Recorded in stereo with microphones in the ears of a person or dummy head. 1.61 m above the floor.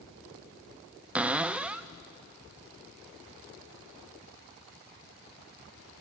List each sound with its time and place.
1.1 s a cupboard door: 5° right (ahead or behind), 0.5 m